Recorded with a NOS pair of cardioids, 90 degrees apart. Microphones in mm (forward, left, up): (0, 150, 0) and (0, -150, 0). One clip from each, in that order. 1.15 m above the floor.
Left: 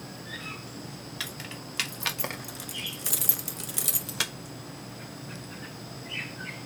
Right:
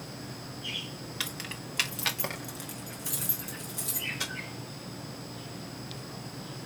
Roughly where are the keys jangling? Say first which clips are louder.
Right 1 dB; ahead.